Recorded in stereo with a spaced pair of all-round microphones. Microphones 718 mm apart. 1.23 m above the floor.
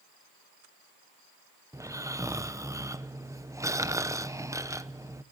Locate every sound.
1.7 s snoring: 5° right (ahead or behind), 0.8 m